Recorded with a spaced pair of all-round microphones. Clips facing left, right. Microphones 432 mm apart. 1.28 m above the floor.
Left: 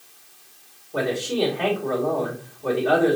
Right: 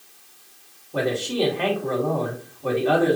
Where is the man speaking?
35° right (ahead or behind), 1.9 m.